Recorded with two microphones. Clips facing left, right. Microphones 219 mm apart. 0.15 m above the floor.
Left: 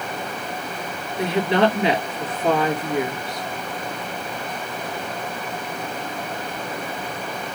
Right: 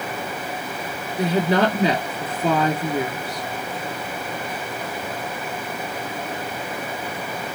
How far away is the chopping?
No chopping in this recording.